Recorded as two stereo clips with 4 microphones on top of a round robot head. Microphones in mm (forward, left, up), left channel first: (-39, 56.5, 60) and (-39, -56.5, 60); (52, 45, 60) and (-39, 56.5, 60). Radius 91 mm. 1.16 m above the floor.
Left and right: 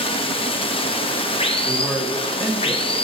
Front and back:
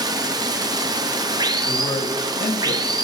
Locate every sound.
0.0 s running water: 130° left, 0.8 m
1.6 s a man speaking: 5° right, 1.5 m